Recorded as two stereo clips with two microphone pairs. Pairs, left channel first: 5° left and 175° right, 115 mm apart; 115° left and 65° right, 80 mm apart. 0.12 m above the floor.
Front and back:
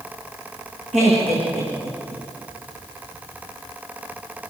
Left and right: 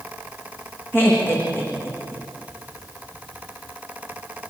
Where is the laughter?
Straight behind, 7 m.